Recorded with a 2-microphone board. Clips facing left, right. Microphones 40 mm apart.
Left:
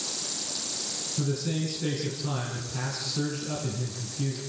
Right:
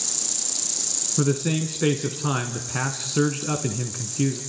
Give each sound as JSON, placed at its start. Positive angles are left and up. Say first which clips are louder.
{"t": 0.0, "sound": "an insect", "louder": "even", "side_deg": 15, "distance_m": 3.0}
{"t": 1.2, "sound": "a man speaking", "louder": "right 7 dB", "side_deg": -50, "distance_m": 2.0}